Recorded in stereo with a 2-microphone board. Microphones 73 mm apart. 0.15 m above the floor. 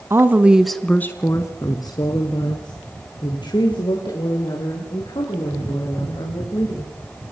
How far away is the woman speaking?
About 1.2 m.